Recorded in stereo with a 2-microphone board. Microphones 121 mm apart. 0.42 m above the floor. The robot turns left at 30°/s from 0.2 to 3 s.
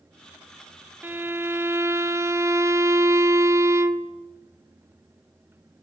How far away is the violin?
About 1.1 m.